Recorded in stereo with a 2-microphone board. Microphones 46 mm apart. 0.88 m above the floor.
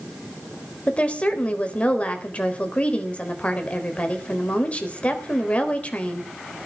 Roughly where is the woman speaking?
Left.